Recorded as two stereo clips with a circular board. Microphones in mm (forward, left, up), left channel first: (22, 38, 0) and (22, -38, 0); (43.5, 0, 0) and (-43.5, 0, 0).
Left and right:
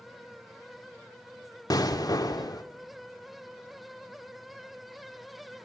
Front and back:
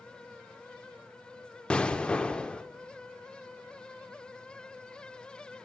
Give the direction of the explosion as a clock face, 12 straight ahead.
9 o'clock.